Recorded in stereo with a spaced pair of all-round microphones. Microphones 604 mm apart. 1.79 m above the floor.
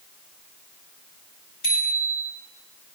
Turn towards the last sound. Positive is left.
turn(degrees=55)  # may be behind; listen again after turning